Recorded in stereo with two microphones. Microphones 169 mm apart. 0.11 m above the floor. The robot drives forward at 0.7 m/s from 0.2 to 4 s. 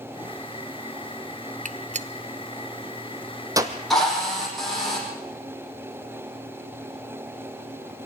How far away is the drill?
About 5.5 m.